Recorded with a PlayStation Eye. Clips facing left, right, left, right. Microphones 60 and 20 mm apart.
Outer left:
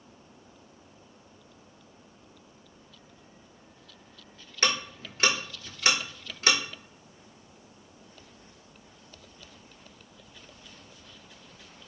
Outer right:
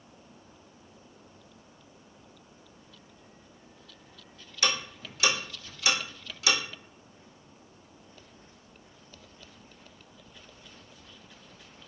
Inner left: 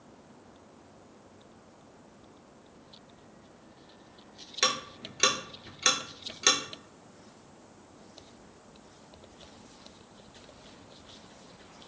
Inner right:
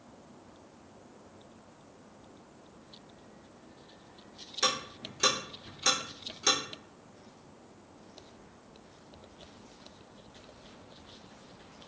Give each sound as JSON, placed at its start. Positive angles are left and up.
{"t": 4.6, "sound": "ticking", "side_deg": 45, "distance_m": 0.7}